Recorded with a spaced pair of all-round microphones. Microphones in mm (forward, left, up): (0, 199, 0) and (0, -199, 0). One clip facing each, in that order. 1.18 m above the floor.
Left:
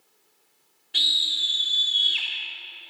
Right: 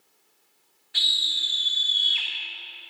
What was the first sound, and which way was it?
A scream, 45° left (ahead or behind).